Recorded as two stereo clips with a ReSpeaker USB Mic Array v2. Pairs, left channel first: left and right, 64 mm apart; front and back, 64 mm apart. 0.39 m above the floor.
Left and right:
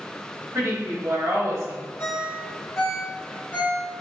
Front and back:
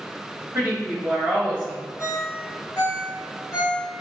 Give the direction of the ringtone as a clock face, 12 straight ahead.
11 o'clock.